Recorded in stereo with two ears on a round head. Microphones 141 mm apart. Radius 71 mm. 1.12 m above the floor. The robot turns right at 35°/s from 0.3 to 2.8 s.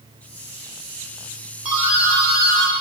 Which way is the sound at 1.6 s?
175° right.